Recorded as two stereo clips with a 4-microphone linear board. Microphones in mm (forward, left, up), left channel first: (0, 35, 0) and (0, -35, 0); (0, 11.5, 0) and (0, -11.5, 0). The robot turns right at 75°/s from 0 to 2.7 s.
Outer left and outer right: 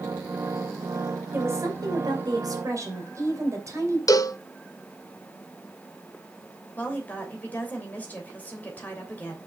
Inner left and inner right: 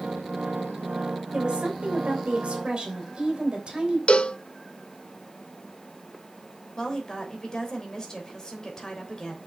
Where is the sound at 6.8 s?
25° left (ahead or behind), 3 m.